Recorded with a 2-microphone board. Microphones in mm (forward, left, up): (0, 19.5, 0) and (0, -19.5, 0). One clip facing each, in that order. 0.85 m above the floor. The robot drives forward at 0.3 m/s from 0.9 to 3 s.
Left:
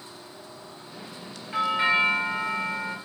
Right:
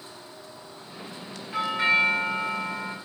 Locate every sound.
1.5 s a doorbell: 15° left (ahead or behind), 0.8 m; by 3.0 s 10° left (ahead or behind), 1.0 m